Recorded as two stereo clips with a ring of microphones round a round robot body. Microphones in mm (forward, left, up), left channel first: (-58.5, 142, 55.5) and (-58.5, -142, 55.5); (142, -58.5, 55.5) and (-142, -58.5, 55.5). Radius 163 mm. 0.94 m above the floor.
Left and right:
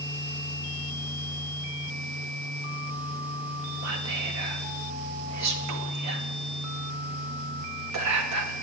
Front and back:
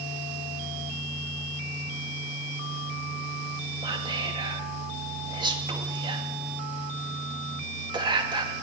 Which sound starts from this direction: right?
Whispering, at 3.8 s.